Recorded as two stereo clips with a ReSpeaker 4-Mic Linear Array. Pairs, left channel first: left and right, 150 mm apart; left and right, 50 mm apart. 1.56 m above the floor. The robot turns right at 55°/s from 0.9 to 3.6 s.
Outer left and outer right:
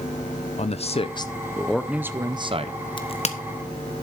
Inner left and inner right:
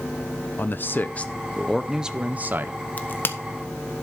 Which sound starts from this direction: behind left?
A man speaking, at 0.6 s.